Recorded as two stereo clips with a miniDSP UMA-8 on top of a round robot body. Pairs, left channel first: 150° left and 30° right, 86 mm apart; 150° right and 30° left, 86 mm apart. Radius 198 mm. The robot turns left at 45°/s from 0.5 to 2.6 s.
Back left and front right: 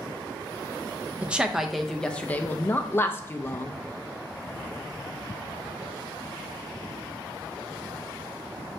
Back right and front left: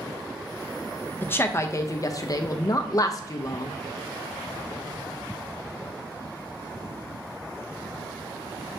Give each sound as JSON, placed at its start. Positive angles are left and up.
{"t": 1.2, "sound": "a woman speaking", "azimuth_deg": -95, "distance_m": 0.6}